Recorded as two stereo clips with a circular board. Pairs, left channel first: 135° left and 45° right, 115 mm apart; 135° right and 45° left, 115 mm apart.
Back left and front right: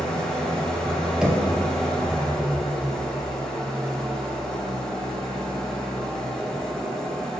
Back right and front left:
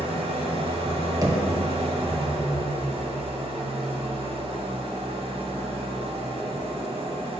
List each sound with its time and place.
0.0 s an engine running: 50° left, 0.9 m
1.2 s knocking: 30° left, 0.8 m